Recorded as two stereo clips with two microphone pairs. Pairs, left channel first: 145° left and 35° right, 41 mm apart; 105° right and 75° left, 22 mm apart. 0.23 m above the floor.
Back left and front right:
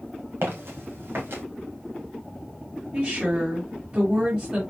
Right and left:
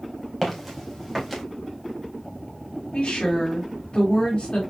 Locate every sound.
0.4 s footsteps: 10° right, 3 m
2.9 s a woman speaking: 75° right, 1.9 m